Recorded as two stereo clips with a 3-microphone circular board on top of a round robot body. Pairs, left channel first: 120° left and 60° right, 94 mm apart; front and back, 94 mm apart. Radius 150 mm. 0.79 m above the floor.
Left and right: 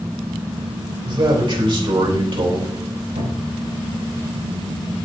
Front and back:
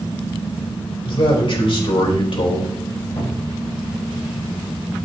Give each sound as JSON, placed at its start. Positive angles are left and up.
{"t": 1.0, "sound": "a man speaking", "azimuth_deg": -25, "distance_m": 3.5}
{"t": 3.2, "sound": "a cupboard door", "azimuth_deg": -55, "distance_m": 2.5}